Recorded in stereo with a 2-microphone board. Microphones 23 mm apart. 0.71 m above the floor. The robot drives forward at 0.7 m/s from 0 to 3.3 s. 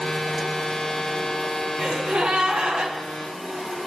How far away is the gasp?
About 7.5 m.